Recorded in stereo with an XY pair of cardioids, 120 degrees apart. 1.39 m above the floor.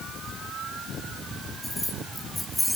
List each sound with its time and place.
1.6 s keys jangling: 20° left, 3 m